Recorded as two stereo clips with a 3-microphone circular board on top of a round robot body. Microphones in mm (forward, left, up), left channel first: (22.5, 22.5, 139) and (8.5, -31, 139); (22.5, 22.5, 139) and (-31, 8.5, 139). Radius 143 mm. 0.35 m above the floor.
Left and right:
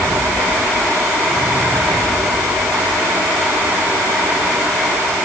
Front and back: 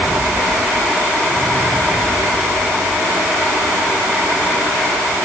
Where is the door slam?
I don't hear a door slam.